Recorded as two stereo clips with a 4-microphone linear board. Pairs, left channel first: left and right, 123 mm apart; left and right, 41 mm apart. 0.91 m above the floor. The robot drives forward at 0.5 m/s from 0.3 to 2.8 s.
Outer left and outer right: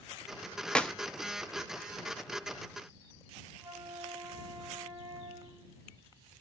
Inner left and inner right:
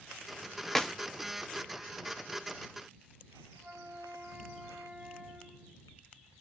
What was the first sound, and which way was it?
A clap, 5° left (ahead or behind).